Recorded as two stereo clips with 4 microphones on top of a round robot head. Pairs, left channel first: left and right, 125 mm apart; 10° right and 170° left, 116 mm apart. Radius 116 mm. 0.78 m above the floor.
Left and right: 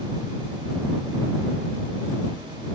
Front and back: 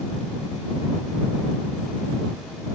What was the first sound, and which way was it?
Only background noise.